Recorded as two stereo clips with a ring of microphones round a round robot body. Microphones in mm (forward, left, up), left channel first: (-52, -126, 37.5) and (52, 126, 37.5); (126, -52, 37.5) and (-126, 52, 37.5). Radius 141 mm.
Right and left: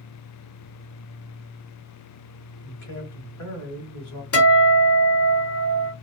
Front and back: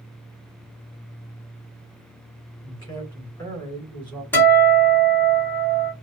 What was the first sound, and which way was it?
A man speaking, 95° right.